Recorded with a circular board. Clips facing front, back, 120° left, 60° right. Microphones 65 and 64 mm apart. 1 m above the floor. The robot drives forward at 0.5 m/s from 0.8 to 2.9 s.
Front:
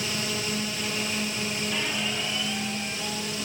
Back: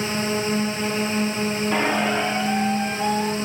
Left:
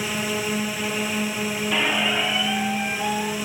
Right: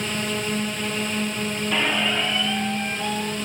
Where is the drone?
160° right; by 3.5 s 165° right.